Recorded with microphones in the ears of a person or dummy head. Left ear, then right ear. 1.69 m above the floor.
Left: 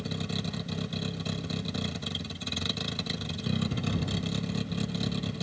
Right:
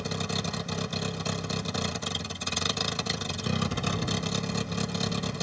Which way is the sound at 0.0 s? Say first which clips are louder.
Right 4 dB; 45° right (ahead or behind).